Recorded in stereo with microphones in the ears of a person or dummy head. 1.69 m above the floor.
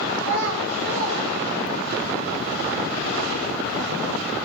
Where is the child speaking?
70° right (ahead or behind), 4.5 m; by 2.0 s 80° right, 6.5 m.